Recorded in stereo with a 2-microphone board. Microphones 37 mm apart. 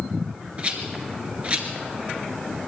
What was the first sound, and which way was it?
A rattle, 35° right (ahead or behind).